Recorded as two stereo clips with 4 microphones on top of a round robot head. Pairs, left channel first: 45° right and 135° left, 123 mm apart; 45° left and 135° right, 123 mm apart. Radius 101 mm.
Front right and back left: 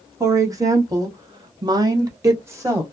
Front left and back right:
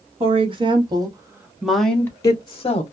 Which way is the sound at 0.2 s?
165° right.